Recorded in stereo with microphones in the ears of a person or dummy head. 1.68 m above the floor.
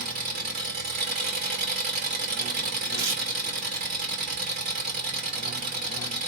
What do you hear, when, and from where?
0.0 s an engine running: 40° right (ahead or behind), 1.0 m
3.0 s tearing paper: 60° right (ahead or behind), 1.0 m